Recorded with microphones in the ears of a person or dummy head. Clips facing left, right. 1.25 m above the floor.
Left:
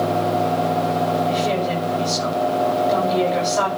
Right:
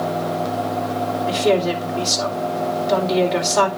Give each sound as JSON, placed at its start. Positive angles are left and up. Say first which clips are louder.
{"t": 1.3, "sound": "a woman speaking", "louder": "right 3 dB", "side_deg": -85, "distance_m": 4.5}